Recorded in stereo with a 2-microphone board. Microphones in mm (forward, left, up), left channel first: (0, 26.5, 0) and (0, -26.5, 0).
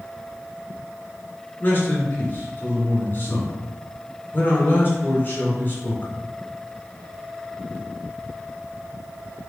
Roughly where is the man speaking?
Left.